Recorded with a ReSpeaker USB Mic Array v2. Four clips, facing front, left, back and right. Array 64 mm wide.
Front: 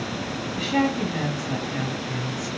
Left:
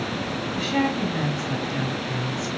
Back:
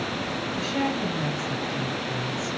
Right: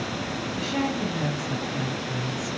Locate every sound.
0.6 s a woman speaking: 20° left, 3.5 m